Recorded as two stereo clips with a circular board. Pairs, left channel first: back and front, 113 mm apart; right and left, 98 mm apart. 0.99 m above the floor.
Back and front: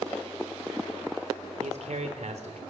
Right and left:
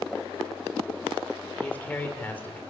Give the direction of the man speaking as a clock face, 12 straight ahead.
1 o'clock.